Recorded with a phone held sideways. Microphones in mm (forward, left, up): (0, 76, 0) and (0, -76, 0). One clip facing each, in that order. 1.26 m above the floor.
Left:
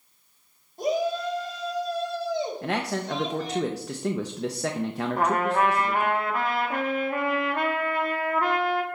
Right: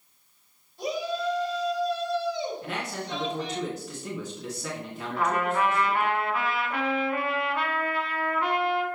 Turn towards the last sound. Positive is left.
turn(degrees=50)  # may be behind; listen again after turning